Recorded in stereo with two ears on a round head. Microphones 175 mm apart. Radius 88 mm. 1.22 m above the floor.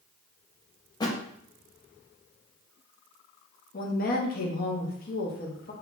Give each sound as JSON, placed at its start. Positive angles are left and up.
{"t": 1.0, "sound": "a thud", "side_deg": 20, "distance_m": 0.5}
{"t": 3.7, "sound": "a woman speaking", "side_deg": 45, "distance_m": 0.7}